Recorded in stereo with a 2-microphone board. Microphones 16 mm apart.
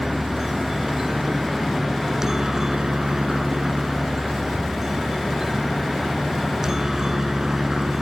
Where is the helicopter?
25° right (ahead or behind).